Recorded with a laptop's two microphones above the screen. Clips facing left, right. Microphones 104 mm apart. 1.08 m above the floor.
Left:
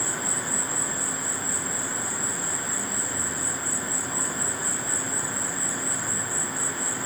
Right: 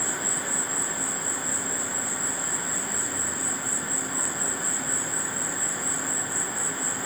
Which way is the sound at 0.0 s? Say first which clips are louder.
Even; 25° left (ahead or behind).